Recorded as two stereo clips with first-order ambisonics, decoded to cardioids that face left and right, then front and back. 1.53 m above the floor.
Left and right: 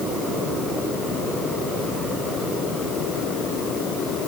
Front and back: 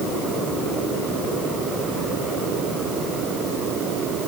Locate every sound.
Only background noise.